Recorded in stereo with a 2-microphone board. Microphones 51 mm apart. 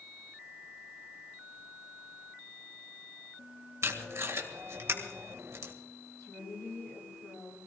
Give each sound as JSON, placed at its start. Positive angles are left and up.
{"t": 3.8, "sound": "tape being pulled", "side_deg": -60, "distance_m": 2.0}
{"t": 6.2, "sound": "a woman speaking", "side_deg": 55, "distance_m": 9.5}